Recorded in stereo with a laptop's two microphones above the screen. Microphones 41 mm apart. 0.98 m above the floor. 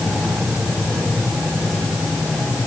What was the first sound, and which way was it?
Only background noise.